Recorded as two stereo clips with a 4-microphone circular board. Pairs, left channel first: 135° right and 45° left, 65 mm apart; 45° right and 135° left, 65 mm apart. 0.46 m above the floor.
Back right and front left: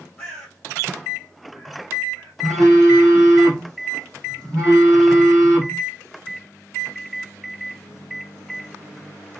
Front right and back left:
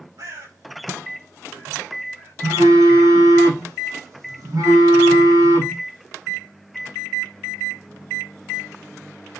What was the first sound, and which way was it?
A bird, 145° left.